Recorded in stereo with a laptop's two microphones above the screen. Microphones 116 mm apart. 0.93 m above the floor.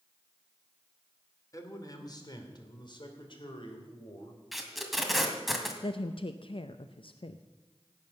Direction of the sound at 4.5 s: Centre (ahead or behind).